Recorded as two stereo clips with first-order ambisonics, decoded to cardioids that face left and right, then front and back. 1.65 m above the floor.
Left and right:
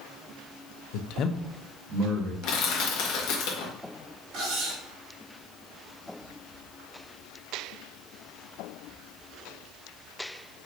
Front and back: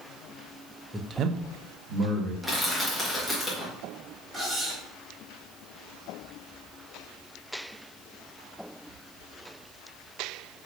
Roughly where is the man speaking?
Left.